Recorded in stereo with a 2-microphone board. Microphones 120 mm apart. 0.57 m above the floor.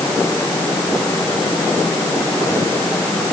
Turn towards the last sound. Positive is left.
No sound to turn to.